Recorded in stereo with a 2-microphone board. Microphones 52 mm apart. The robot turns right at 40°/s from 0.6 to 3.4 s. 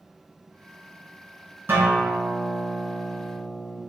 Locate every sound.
1.7 s a guitar: 95° right, 1.4 m; by 3.8 s 25° right, 1.4 m